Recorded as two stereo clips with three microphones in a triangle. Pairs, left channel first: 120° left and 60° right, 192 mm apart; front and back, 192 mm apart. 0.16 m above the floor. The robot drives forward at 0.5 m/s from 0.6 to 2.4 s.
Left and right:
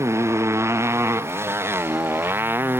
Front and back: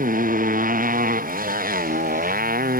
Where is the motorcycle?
135° right; by 2.8 s 140° right.